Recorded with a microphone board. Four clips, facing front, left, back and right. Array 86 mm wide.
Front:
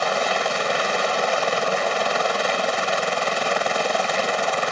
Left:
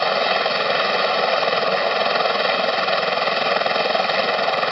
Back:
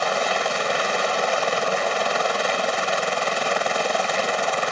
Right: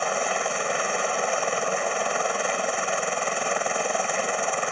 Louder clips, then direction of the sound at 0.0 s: Left 6 dB, front 1 dB; 85° left.